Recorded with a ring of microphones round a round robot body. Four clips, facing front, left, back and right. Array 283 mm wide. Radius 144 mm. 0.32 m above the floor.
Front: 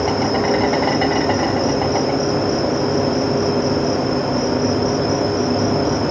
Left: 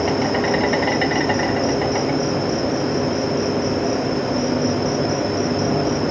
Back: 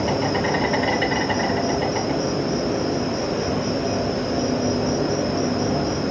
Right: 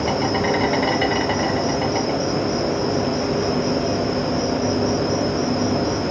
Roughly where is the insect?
Ahead.